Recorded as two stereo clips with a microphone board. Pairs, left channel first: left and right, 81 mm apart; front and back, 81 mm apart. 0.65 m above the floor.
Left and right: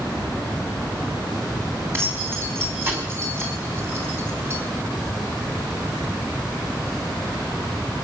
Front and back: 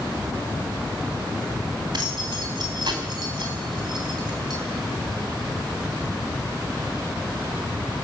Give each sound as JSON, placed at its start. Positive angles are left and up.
{"t": 1.9, "sound": "keys jangling", "azimuth_deg": -150, "distance_m": 3.5}